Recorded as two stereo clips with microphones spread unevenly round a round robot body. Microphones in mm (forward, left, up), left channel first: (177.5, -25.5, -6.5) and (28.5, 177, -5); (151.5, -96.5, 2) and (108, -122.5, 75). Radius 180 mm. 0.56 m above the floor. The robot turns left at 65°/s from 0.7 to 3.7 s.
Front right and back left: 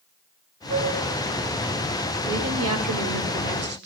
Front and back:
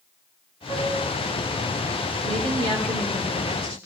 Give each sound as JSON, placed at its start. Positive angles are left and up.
{"t": 0.7, "sound": "a flute", "azimuth_deg": -150, "distance_m": 1.3}
{"t": 2.2, "sound": "a woman speaking", "azimuth_deg": 180, "distance_m": 1.8}